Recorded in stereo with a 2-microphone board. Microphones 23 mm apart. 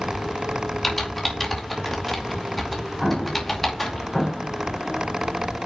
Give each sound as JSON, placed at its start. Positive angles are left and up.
{"t": 0.8, "sound": "typing on a keyboard", "side_deg": 15, "distance_m": 2.5}
{"t": 3.0, "sound": "an explosion", "side_deg": 10, "distance_m": 3.0}